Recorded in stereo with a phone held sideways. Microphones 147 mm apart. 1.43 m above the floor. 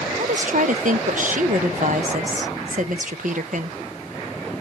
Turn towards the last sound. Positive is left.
turn(degrees=-65)  # may be behind; listen again after turning